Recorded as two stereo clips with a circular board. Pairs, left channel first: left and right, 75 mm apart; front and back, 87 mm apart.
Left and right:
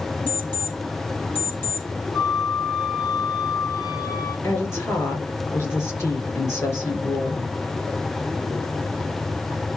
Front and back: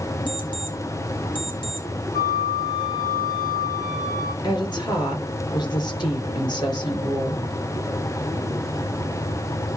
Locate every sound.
0.3 s an alarm clock: 25° left, 2.5 m
2.1 s a flute: 50° left, 3 m
4.4 s a woman speaking: 35° left, 5.5 m